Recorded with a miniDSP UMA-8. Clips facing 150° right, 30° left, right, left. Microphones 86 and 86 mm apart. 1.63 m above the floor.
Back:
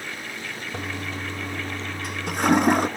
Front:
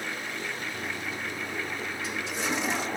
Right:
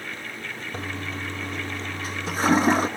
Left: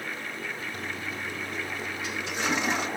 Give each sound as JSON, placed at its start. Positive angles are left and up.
{"t": 0.7, "sound": "a toilet flushing", "azimuth_deg": -130, "distance_m": 0.6}